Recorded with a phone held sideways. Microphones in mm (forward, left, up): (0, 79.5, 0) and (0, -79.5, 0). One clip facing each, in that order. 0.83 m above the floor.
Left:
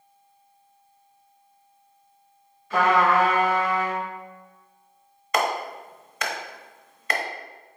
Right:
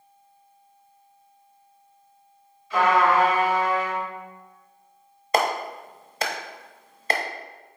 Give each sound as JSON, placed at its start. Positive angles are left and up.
{"t": 2.7, "sound": "a trumpet", "side_deg": 55, "distance_m": 3.0}
{"t": 5.3, "sound": "a clap", "side_deg": -30, "distance_m": 0.9}